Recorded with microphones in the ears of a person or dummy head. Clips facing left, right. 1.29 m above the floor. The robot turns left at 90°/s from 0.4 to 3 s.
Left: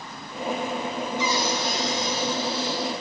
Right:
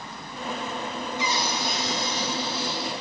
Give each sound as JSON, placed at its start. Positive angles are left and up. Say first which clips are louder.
{"t": 1.2, "sound": "a cupboard door", "louder": "left 3 dB", "azimuth_deg": 95, "distance_m": 7.0}